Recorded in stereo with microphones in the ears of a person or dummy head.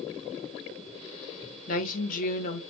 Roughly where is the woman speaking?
Left.